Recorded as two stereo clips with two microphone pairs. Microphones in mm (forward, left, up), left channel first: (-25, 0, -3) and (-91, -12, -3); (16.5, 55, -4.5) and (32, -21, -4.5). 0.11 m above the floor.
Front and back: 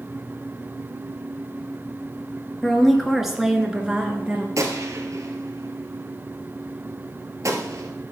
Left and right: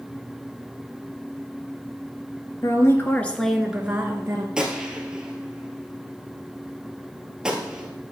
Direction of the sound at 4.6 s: 155° right.